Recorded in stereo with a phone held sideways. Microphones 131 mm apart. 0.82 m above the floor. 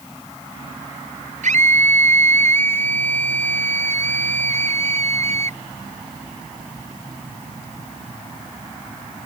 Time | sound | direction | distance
1.4 | a scream | 65° right (ahead or behind) | ?